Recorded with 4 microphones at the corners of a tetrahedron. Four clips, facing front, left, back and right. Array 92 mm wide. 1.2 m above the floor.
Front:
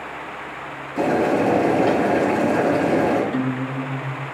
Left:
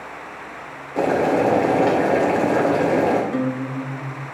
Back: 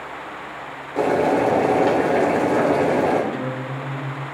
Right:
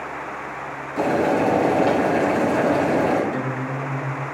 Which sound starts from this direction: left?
A guitar, at 3.3 s.